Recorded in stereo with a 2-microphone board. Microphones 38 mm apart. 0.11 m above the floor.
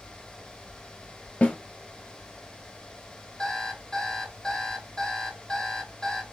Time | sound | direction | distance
1.4 | a snare drum | 35° left (ahead or behind) | 1.0 m
3.4 | an alarm clock | 15° left (ahead or behind) | 1.9 m